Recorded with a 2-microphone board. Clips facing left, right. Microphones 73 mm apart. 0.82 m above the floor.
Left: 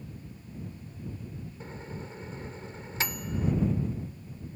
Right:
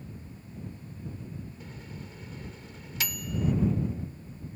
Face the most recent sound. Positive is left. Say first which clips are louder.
# left 3 dB
turn(degrees=35)  # may be behind; listen again after turning